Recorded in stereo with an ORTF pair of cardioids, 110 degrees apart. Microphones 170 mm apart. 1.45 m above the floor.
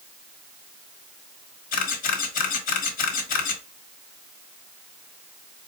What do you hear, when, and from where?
1.7 s a camera shutter: 55° left, 1.4 m